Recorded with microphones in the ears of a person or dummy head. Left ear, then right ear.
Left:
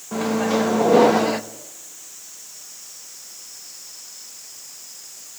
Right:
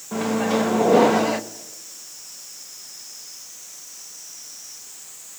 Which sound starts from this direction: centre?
A microwave, at 0.1 s.